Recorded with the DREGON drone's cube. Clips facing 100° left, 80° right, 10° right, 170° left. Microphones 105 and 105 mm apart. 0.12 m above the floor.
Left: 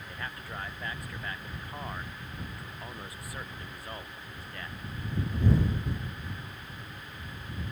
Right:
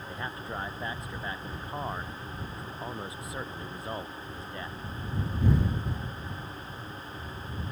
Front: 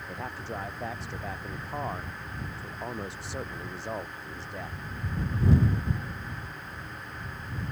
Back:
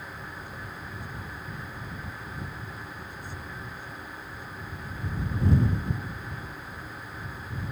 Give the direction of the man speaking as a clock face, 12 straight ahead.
12 o'clock.